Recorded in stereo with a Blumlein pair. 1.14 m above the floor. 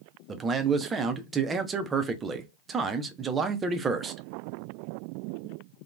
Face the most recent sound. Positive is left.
turn(degrees=-15)